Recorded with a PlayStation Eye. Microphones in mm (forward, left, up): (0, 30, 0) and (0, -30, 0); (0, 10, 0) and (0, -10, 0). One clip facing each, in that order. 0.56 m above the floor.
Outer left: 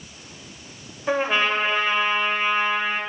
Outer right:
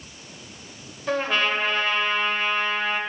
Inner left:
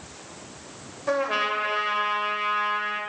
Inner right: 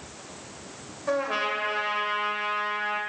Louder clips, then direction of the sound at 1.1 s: Outer left 2 dB, inner left 2 dB; 15° left (ahead or behind).